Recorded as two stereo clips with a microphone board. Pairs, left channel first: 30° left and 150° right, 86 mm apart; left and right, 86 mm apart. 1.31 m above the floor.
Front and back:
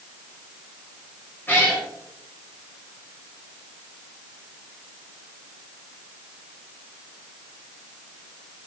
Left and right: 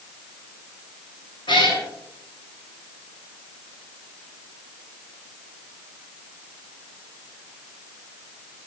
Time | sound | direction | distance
1.5 | a cat meowing | 95° left | 7 m